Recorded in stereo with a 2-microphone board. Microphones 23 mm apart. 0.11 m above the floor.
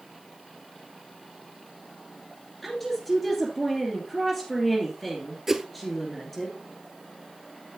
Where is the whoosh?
15° right (ahead or behind), 0.6 m.